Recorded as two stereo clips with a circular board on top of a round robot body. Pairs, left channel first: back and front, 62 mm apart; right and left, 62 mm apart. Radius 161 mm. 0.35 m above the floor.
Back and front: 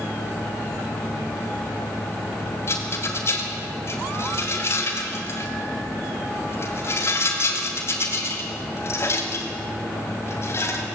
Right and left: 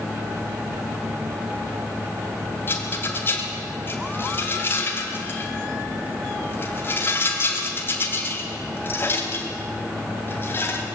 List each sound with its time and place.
2.7 s a rattle: 140° right, 3 m